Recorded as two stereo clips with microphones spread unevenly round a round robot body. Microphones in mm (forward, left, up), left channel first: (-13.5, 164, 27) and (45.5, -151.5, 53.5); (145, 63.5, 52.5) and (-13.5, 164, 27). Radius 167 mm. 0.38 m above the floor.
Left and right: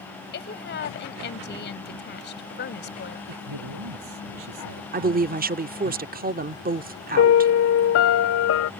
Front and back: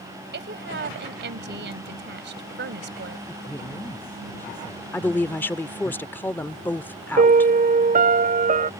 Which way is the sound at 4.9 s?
120° right.